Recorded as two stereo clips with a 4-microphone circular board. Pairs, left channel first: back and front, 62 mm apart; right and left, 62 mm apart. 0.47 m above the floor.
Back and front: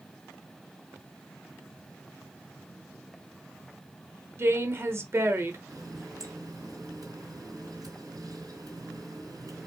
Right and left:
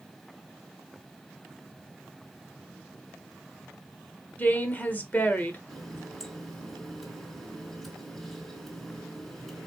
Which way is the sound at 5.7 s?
Straight ahead.